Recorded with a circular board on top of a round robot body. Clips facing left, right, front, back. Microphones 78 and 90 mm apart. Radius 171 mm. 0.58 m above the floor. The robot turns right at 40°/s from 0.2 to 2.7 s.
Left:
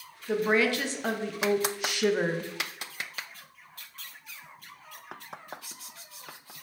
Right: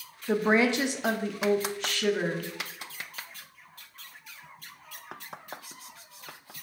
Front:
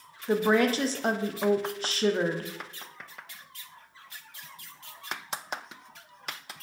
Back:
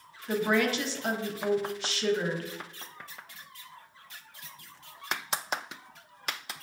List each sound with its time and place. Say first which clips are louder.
0.3 s a woman speaking: right 1 dB, front 3 dB; 45° right, 0.7 m; by 2.5 s 45° left, 0.7 m